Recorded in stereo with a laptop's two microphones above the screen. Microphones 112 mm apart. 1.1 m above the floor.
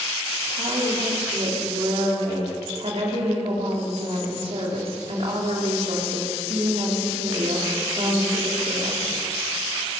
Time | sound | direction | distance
0.5 | a woman speaking | 60° right (ahead or behind) | 3 m